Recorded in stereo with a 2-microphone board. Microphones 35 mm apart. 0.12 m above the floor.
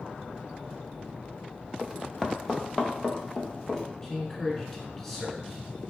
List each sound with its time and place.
1.8 s running footsteps: 10° right (ahead or behind), 0.7 m; by 3.8 s 20° left (ahead or behind), 1.6 m
4.0 s a man speaking: 10° left (ahead or behind), 1.2 m